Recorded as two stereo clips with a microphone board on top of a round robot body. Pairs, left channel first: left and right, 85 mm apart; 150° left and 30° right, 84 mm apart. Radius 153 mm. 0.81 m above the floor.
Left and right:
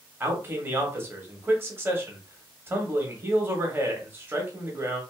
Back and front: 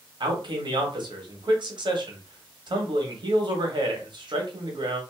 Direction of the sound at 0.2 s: 30° right.